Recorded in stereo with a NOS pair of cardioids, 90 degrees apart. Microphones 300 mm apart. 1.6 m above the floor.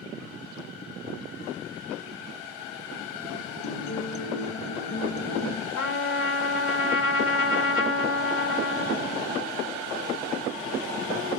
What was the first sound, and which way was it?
A guitar, 70° left.